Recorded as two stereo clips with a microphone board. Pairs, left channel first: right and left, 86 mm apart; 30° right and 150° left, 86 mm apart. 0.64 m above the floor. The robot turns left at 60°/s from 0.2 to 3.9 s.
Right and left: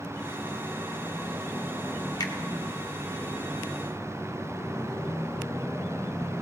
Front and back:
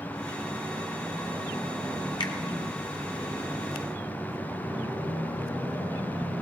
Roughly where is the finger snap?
Ahead right.